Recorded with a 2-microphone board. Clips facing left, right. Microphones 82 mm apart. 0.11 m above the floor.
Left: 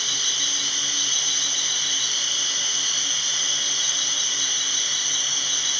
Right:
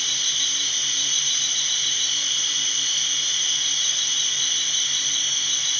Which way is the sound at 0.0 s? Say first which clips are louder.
Left 1 dB; 50° right (ahead or behind).